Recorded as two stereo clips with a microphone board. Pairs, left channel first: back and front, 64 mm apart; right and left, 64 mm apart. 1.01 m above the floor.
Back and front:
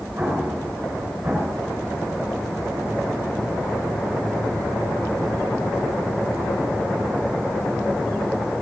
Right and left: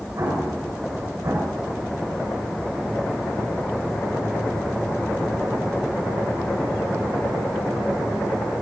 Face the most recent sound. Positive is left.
turn(degrees=55)